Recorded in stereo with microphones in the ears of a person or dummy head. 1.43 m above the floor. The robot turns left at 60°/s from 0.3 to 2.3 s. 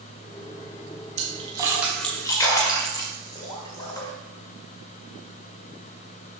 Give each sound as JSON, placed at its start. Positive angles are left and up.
{"t": 1.2, "sound": "a splash", "side_deg": -40, "distance_m": 1.9}